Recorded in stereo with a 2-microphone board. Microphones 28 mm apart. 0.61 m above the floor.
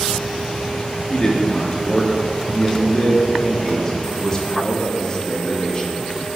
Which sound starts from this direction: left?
A man speaking, at 1.1 s.